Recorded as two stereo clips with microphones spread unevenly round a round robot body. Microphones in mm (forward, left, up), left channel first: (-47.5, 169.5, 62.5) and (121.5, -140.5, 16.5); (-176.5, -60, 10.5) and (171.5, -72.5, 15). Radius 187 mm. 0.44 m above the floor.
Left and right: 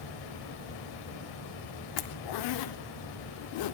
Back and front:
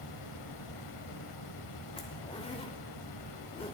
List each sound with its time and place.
0.0 s running water: 140° left, 1.1 m
2.0 s a zipper: 105° left, 0.5 m